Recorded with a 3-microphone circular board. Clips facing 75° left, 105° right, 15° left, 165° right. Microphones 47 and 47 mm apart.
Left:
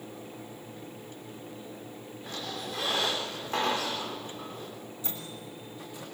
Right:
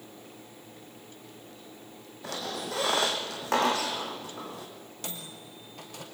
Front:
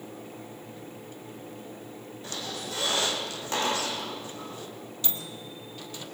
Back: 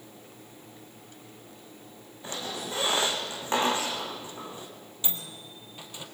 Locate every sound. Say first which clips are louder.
2.2 s a squeak: right 3 dB, back 2 dB; 95° right, 3.5 m
5.0 s a microwave: right 1 dB, back 1 dB; 95° right, 3 m